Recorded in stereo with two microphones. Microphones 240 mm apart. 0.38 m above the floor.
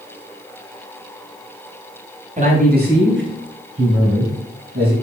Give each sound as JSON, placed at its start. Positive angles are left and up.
{"t": 2.4, "sound": "a man speaking", "side_deg": -30, "distance_m": 2.5}